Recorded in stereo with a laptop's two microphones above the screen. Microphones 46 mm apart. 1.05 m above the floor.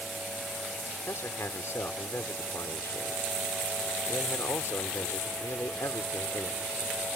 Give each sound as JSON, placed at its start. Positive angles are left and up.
{"t": 1.1, "sound": "a man speaking", "side_deg": 70}